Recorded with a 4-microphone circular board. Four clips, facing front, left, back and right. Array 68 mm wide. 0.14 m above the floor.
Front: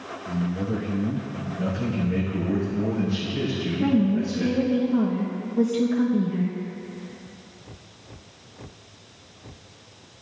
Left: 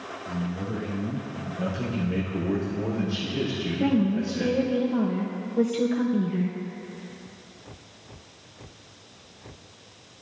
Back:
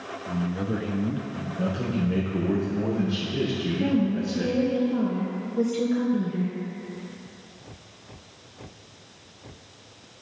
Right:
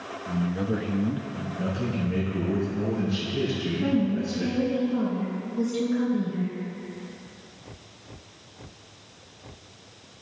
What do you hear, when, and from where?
0.3 s a man speaking: 125° right, 1.6 m
1.6 s a man speaking: 160° left, 4.5 m
3.8 s a woman speaking: 90° left, 3 m